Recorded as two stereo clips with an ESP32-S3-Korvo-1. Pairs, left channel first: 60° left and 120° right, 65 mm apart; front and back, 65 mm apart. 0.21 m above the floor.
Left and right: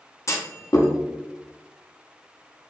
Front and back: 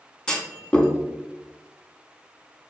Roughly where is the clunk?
Left.